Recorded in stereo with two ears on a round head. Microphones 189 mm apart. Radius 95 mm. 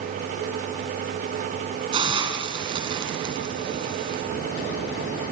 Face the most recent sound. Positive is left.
turn(degrees=-20)  # may be behind; listen again after turning